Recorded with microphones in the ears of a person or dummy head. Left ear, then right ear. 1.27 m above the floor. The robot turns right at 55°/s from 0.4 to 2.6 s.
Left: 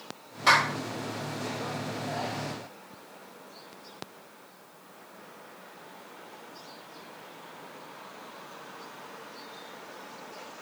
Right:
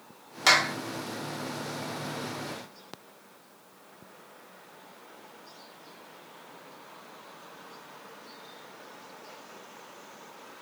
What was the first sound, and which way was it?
A clap, 40° right (ahead or behind).